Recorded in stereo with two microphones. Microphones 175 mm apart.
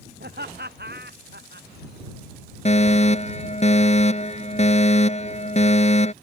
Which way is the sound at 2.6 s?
40° left (ahead or behind).